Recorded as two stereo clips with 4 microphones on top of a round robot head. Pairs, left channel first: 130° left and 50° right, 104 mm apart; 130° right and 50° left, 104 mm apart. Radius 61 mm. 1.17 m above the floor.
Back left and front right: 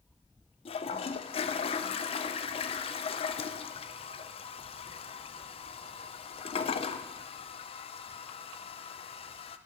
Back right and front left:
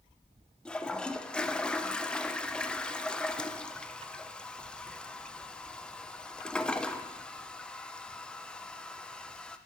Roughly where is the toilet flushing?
Behind left.